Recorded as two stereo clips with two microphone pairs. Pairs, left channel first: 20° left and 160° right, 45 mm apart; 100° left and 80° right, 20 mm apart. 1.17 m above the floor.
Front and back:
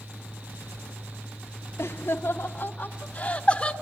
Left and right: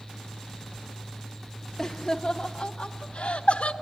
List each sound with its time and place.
1.8 s laughter: 20° left, 0.8 m; by 3.7 s 95° left, 1.3 m